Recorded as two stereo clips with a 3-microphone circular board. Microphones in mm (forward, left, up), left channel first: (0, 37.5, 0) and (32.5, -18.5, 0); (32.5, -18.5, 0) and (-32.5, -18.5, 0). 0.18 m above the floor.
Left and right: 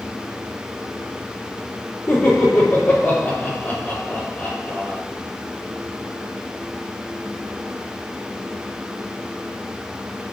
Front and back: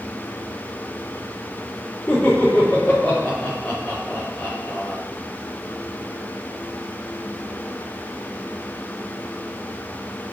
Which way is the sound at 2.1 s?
75° left.